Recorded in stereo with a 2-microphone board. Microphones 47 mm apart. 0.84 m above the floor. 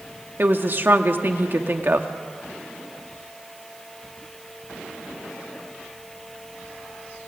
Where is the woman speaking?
45° right (ahead or behind), 1.8 m.